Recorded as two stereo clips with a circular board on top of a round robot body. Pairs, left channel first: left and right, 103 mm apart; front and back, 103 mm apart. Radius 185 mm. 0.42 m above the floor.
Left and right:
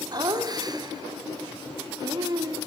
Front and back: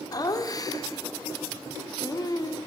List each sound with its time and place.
0.1 s laughter: 45° right, 1.3 m